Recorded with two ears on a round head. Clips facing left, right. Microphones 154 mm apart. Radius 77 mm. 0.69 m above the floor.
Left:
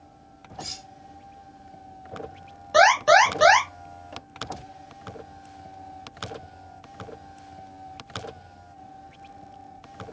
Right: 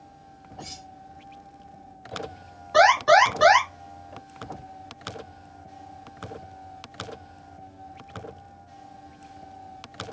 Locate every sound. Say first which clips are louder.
0.6 s cutlery clinking: left 2 dB; 60° left (ahead or behind), 1.0 m
2.7 s an alarm: even; 35° left (ahead or behind), 1.8 m